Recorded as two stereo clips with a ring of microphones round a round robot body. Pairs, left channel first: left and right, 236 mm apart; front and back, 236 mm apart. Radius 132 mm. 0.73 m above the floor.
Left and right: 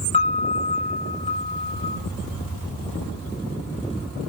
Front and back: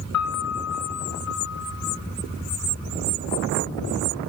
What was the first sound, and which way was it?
A piano, 25° left.